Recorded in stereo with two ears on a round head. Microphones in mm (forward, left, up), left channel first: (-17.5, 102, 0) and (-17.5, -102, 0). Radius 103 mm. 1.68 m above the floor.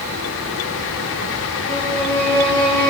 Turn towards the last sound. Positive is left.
turn(degrees=5)  # may be behind; listen again after turning